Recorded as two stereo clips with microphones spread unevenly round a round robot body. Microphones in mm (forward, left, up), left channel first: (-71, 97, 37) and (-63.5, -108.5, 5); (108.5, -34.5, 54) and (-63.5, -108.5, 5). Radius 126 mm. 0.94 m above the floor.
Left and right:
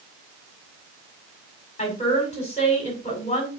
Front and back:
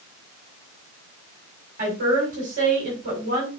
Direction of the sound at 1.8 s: 155° left.